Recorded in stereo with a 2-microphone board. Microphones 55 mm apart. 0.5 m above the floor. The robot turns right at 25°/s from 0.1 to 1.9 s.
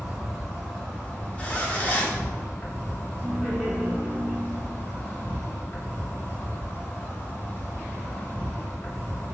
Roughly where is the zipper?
Left.